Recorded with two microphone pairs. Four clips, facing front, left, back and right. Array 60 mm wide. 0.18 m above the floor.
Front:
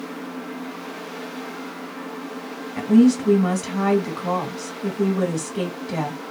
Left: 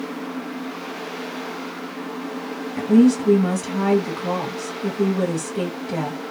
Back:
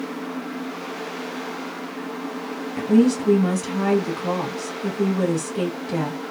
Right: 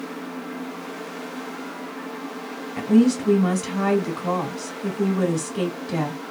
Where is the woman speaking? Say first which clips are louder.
Left 3 dB, front 2 dB; 20° right, 1.2 m.